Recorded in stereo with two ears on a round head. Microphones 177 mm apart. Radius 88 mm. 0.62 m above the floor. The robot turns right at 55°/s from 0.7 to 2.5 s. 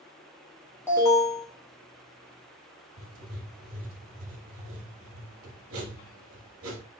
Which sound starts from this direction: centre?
An alarm, at 0.9 s.